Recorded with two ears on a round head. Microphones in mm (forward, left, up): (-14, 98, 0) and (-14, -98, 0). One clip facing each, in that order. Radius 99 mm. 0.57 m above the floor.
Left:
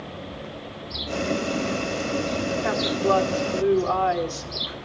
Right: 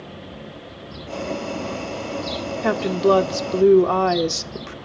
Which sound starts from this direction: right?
A woman speaking, at 2.6 s.